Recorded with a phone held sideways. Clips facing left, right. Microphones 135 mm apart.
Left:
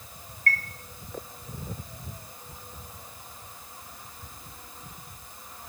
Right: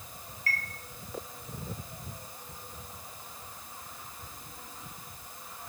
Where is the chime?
55° left (ahead or behind), 1.1 m.